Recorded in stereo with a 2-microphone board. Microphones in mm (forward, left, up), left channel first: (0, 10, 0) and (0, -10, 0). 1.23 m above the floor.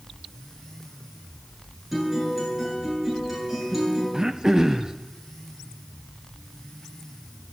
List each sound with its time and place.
1.9 s a guitar: 15° right (ahead or behind), 9.5 m
4.1 s throat clearing: 20° right (ahead or behind), 0.7 m